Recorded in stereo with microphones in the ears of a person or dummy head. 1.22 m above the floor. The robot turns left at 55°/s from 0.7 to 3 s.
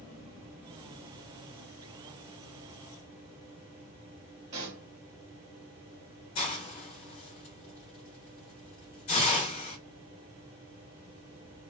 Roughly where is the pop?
Right.